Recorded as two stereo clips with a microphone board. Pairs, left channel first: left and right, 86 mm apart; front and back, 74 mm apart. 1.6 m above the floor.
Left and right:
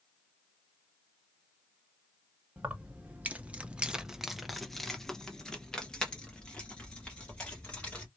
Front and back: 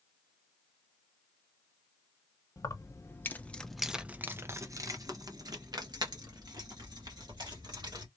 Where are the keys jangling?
25° right, 1.0 m; by 8.1 s 170° left, 2.5 m.